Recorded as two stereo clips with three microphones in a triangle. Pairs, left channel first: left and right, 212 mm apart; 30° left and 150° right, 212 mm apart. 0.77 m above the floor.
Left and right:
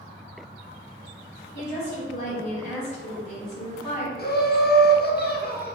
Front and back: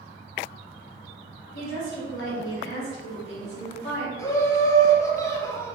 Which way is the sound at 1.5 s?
35° left.